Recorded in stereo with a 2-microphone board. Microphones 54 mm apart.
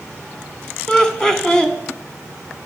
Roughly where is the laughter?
Centre.